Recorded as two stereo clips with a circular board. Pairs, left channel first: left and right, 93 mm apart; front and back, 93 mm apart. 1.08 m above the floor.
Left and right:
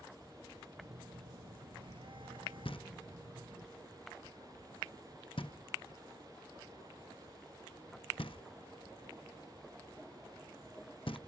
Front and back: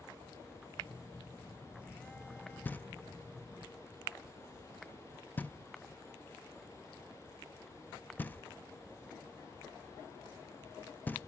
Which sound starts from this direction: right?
A phone buzzing, at 0.8 s.